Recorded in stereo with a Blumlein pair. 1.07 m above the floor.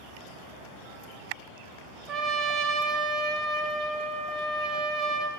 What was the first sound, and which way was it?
A trumpet, 20° right.